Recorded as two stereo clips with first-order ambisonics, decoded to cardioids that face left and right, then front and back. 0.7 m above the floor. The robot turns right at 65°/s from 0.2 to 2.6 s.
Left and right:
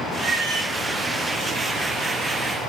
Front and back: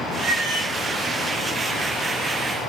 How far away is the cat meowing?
About 3 m.